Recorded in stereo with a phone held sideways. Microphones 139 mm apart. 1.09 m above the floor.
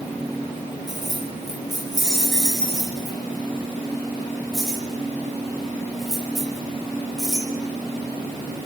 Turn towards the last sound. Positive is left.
turn(degrees=-5)  # may be behind; listen again after turning